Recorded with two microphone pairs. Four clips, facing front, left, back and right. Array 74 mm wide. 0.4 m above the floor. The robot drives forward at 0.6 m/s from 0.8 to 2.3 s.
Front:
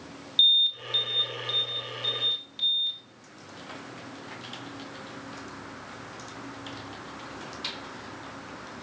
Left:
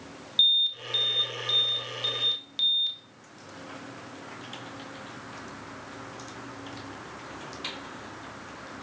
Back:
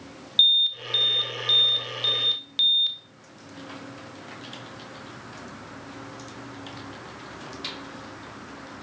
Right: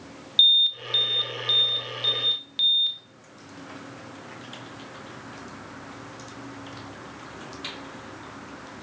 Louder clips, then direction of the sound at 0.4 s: Right 5 dB, back 2 dB; 125° right.